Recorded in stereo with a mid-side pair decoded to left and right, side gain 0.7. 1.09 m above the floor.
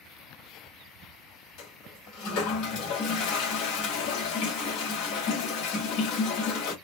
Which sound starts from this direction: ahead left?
A toilet flushing, at 1.6 s.